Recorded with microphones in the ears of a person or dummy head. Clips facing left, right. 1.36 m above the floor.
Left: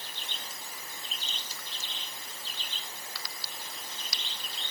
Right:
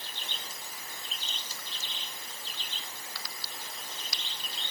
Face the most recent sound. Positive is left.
No sound to turn to.